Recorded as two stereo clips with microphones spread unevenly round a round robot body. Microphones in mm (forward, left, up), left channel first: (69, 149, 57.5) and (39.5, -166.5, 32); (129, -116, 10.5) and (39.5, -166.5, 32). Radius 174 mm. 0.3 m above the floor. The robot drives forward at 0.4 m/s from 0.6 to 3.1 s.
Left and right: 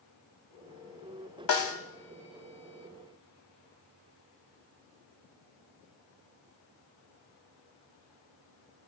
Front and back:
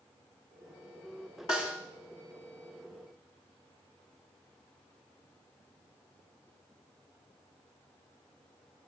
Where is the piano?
No piano in this recording.